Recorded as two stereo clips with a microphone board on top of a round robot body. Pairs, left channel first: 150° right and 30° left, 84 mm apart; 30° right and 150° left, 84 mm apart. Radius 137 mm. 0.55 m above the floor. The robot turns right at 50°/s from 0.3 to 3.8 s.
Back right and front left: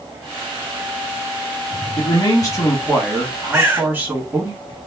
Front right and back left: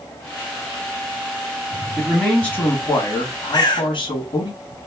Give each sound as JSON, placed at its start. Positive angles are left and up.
{"t": 2.0, "sound": "a man speaking", "azimuth_deg": -130, "distance_m": 1.2}
{"t": 3.5, "sound": "a bird", "azimuth_deg": -35, "distance_m": 1.8}